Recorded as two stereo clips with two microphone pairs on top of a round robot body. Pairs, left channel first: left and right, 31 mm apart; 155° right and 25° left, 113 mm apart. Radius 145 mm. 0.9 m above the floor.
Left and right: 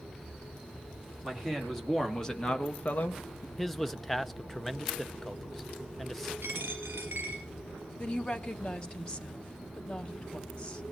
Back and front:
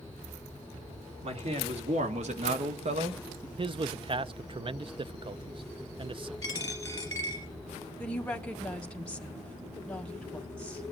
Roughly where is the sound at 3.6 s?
Ahead.